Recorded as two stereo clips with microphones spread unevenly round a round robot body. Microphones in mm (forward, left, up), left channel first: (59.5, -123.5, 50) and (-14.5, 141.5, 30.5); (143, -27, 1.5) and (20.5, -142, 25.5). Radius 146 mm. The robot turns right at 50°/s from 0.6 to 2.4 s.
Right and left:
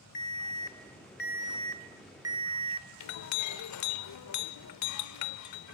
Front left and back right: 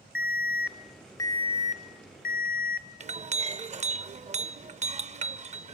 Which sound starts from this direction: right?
A clink, at 3.0 s.